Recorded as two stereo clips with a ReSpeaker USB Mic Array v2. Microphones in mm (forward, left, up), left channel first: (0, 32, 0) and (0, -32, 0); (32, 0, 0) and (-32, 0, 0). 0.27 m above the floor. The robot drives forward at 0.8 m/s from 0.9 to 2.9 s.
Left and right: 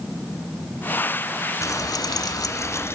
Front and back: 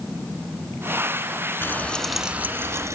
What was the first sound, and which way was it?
Frying, 55° left.